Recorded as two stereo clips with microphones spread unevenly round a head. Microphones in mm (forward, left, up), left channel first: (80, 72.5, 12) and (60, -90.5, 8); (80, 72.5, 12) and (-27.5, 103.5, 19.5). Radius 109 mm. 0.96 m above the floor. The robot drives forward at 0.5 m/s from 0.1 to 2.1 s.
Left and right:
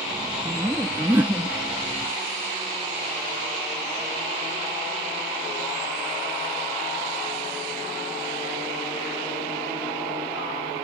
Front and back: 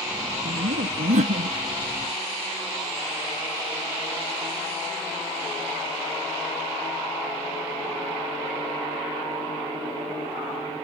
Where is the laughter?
Straight behind.